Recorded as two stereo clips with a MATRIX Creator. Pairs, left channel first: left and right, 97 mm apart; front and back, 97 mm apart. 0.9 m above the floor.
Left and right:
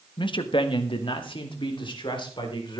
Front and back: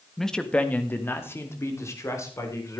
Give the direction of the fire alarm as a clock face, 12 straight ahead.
I don't hear a fire alarm.